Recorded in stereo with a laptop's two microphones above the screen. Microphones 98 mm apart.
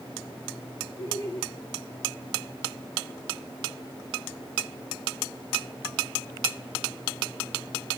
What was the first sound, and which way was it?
Laughter, 80° right.